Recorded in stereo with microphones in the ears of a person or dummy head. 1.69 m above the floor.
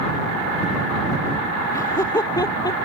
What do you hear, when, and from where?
1.7 s laughter: 20° left (ahead or behind); by 2.9 s 25° left (ahead or behind)